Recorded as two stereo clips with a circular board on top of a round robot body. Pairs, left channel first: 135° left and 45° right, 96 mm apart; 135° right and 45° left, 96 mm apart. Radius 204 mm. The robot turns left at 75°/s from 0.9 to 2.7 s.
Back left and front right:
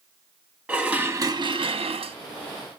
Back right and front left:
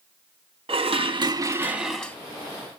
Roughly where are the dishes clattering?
Ahead left.